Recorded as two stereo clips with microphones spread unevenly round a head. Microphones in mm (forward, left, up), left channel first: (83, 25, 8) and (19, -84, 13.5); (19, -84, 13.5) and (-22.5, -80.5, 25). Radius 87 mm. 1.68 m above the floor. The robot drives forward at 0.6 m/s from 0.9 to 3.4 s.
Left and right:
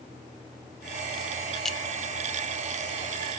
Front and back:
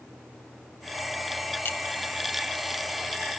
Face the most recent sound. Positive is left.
turn(degrees=-155)